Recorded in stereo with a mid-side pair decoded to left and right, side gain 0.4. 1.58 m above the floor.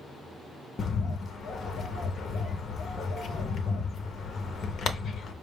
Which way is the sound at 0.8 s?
60° left.